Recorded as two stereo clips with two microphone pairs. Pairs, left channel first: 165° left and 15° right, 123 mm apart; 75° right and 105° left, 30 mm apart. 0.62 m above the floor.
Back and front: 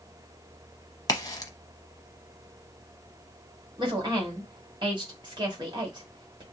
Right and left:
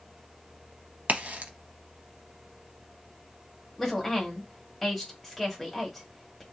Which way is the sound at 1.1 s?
115° left.